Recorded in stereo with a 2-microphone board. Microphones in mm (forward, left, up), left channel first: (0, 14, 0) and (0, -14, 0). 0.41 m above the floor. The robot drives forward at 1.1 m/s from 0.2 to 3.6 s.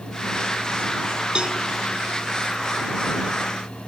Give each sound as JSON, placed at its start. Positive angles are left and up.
{"t": 1.4, "sound": "a cowbell", "side_deg": -40, "distance_m": 0.6}